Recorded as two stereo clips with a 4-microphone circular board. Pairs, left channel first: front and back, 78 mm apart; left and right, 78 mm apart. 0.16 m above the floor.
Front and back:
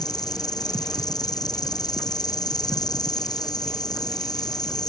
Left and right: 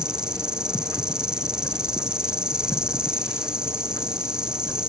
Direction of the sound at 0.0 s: 10° right.